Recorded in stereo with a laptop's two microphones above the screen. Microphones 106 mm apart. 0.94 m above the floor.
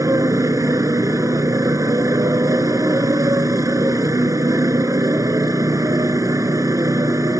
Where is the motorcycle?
30° right (ahead or behind).